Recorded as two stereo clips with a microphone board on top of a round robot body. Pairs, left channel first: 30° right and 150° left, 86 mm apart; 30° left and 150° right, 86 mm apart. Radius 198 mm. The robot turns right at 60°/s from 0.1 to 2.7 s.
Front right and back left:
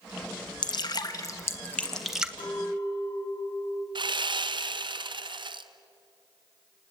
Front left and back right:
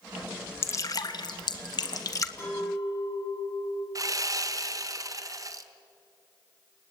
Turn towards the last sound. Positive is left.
turn(degrees=165)